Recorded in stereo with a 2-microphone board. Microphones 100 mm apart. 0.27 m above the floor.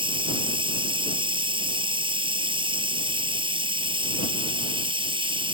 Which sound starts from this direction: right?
Running water, at 0.0 s.